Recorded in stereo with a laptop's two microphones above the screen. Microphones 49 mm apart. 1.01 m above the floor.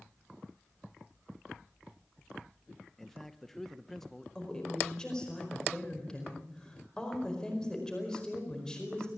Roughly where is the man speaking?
Centre.